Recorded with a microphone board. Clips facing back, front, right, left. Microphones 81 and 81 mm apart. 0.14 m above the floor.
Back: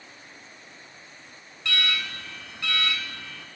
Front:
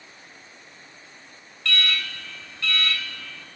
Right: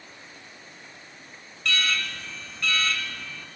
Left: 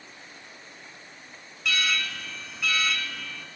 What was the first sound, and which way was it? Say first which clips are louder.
An alarm: front 1 dB, even; 165° left.